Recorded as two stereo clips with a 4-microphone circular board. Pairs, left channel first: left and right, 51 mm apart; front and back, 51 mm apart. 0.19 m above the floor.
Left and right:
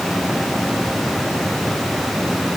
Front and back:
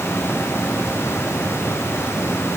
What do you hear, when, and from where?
Only background noise.